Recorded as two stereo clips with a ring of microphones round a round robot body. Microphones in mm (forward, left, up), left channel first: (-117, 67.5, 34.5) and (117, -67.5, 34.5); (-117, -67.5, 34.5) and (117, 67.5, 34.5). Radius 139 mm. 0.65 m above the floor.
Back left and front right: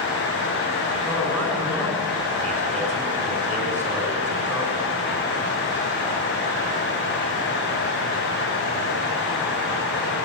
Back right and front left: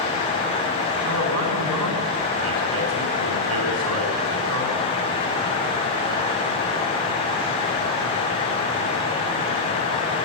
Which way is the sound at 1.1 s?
70° left.